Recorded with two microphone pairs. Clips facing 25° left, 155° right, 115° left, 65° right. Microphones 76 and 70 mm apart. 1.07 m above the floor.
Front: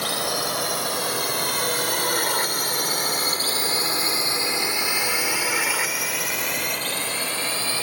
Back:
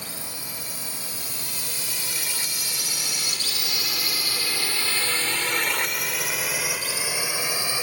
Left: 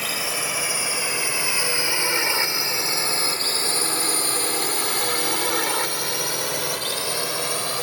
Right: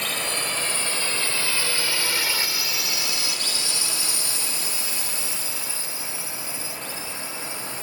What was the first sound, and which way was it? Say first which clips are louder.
A drone: front 13 dB, left 1 dB; 30° left.